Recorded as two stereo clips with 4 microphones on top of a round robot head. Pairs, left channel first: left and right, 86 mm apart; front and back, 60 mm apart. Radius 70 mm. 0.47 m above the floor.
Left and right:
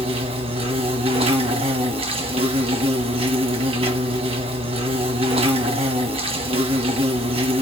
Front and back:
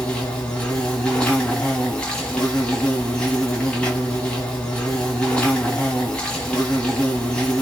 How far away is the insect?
About 1.6 m.